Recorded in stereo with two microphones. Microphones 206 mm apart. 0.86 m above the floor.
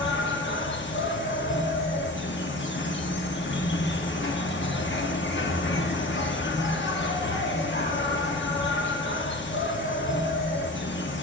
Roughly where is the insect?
Left.